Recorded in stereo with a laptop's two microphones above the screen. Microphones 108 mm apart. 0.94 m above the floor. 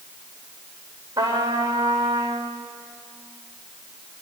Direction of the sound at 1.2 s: 35° right (ahead or behind).